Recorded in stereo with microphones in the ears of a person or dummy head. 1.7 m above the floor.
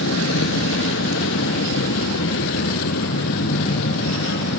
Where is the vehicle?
75° left (ahead or behind); by 4.6 s 65° left (ahead or behind).